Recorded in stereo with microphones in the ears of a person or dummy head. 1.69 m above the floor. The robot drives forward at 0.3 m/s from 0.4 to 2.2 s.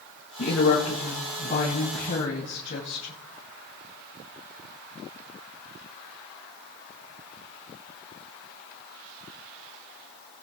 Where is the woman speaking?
40° left (ahead or behind), 3.5 m; by 3.1 s 35° left (ahead or behind), 4 m.